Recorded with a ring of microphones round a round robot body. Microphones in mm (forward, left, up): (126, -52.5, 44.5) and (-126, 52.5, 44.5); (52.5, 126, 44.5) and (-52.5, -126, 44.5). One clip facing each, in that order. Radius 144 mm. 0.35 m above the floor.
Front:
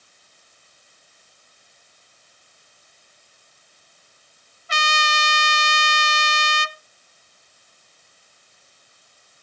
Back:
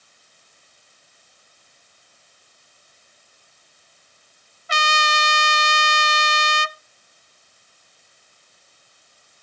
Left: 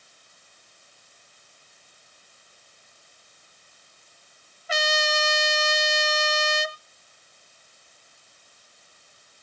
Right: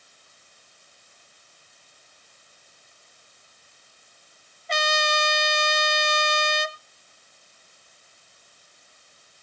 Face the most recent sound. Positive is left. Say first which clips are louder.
# back 2 dB, even
turn(degrees=155)